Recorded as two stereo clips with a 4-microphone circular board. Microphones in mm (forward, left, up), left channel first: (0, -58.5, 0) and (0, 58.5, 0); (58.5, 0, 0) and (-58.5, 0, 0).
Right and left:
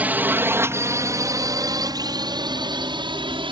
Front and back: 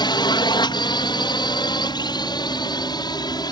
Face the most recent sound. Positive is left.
turn(degrees=50)